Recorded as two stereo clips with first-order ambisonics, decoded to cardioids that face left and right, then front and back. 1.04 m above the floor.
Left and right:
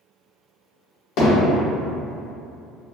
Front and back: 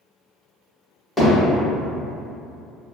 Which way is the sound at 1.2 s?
85° left.